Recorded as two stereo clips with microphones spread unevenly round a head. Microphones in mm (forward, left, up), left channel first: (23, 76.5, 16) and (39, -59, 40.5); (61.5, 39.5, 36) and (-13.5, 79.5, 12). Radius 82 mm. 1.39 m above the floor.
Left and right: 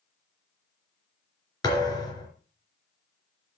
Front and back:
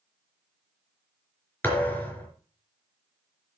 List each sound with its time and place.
1.6 s a thud: 35° left, 4 m